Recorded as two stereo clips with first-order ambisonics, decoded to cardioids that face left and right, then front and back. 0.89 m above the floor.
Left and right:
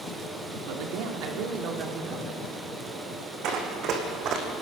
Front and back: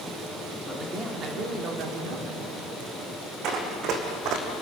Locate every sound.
0.7 s a man speaking: 100° right, 2.5 m; by 2.4 s 150° right, 3 m
3.4 s running footsteps: 135° right, 3.5 m; by 4.5 s 145° right, 3 m